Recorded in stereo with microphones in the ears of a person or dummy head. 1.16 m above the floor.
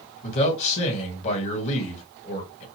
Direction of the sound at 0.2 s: 35° left (ahead or behind).